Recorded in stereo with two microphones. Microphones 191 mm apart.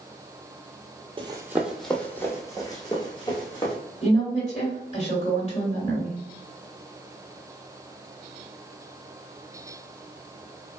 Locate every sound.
1.2 s running footsteps: 30° right (ahead or behind), 0.5 m; by 3.8 s 30° left (ahead or behind), 1.7 m
4.0 s a woman speaking: 35° left (ahead or behind), 1.7 m